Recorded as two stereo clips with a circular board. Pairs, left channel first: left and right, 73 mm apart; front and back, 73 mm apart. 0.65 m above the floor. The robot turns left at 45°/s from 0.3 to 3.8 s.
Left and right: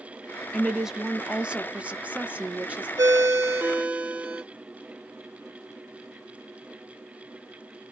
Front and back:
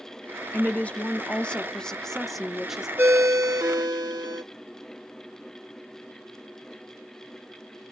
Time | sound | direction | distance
0.5 | a woman speaking | 5° right | 0.5 m
3.0 | a ringtone | 120° right | 0.7 m